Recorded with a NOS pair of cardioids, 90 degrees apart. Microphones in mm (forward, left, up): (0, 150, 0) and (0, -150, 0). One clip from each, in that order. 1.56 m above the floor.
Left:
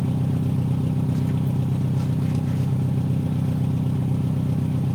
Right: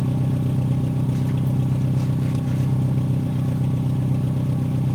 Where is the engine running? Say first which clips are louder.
Right 1 dB; 10° right, 1.2 m.